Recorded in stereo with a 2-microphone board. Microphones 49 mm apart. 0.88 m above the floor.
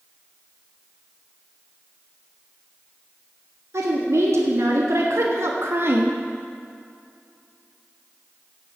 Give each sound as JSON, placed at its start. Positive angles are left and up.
{"t": 3.7, "sound": "a woman speaking", "side_deg": -70, "distance_m": 2.0}